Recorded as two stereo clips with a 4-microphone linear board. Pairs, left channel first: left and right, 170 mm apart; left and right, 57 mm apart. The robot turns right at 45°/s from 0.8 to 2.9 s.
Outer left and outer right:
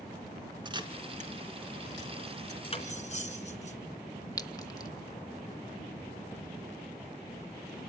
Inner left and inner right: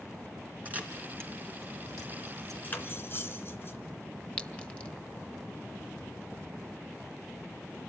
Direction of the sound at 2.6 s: 30° left (ahead or behind).